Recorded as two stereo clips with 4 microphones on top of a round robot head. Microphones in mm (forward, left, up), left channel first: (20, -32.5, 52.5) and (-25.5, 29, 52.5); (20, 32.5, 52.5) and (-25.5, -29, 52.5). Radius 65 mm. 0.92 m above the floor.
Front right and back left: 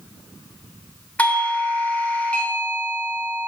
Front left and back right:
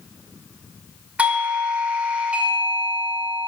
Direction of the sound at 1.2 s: 90° right.